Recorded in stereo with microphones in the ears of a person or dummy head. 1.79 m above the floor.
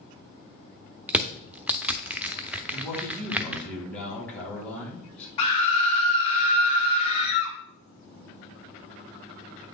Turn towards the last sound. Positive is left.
turn(degrees=40)  # may be behind; listen again after turning